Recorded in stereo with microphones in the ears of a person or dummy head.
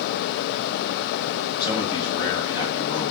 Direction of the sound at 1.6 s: 25° left (ahead or behind).